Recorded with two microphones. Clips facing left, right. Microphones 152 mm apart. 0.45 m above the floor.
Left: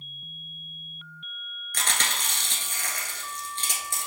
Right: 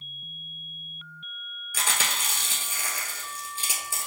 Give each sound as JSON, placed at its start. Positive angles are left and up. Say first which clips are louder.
{"t": 1.7, "sound": "chewing", "louder": "even", "side_deg": -5, "distance_m": 1.2}